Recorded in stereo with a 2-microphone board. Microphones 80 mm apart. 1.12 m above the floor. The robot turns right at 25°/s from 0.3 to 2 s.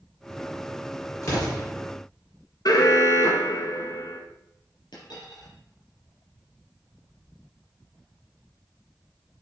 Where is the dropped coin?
75° left (ahead or behind), 4.5 m.